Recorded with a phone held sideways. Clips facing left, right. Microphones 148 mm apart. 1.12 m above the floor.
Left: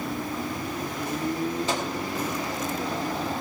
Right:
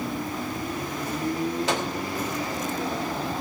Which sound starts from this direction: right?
A microwave, at 1.7 s.